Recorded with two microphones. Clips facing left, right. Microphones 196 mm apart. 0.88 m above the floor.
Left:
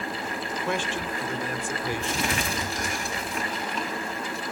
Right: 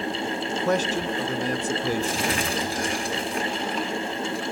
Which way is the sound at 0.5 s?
40° right (ahead or behind).